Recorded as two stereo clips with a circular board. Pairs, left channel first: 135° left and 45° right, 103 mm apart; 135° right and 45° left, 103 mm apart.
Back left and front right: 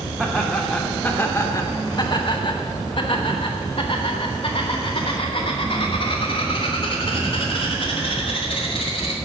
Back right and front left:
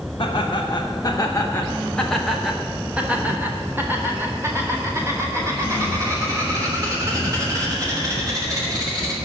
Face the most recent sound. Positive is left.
turn(degrees=100)